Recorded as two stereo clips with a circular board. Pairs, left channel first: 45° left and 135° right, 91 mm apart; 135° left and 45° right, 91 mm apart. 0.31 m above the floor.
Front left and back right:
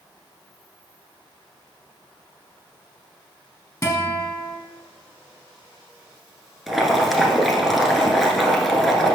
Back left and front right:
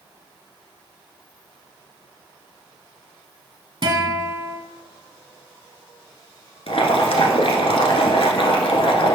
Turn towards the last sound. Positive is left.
turn(degrees=135)